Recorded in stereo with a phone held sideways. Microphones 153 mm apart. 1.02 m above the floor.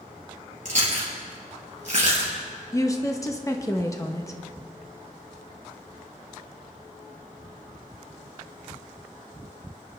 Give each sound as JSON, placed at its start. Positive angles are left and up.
{"t": 0.7, "sound": "chewing", "side_deg": -50, "distance_m": 4.0}
{"t": 2.7, "sound": "a woman speaking", "side_deg": 20, "distance_m": 0.9}